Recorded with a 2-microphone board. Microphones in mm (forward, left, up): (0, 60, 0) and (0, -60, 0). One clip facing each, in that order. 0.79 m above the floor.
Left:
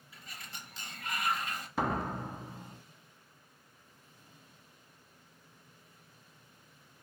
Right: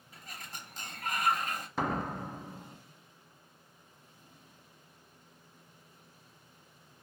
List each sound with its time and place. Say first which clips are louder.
0.1 s a sliding door: right 2 dB; 45° right (ahead or behind), 0.7 m
1.8 s a door slam: left 1 dB; 5° left (ahead or behind), 0.6 m